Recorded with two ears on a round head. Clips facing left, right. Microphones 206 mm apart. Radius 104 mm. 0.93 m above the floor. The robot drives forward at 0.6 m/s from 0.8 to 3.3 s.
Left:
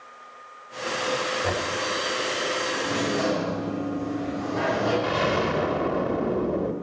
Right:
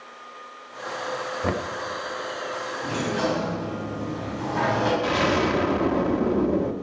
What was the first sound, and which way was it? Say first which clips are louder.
Knocking: right 1 dB; 45° right (ahead or behind).